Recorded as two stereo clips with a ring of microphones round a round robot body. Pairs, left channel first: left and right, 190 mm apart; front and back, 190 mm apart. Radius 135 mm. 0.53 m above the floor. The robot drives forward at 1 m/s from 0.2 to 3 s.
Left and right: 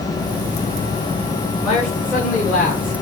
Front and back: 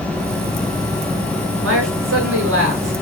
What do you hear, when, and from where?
1.6 s a man speaking: straight behind, 6.5 m